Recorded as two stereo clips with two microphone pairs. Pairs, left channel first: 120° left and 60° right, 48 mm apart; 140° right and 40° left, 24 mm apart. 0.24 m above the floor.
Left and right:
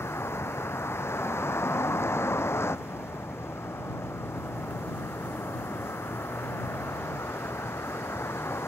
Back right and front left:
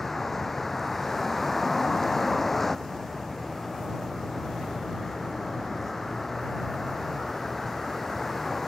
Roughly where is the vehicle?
Behind left.